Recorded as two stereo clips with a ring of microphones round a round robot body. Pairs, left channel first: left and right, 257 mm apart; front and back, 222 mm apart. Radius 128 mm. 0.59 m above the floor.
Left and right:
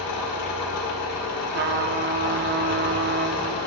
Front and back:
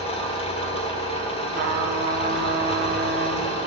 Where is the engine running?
65° left, 1.7 m.